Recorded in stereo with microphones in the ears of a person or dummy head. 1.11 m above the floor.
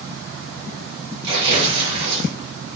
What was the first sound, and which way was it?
Tearing paper, 30° right (ahead or behind).